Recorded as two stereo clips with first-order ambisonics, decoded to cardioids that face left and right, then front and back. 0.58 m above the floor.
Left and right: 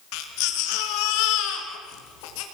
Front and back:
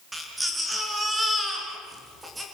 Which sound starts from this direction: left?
A baby crying, at 0.1 s.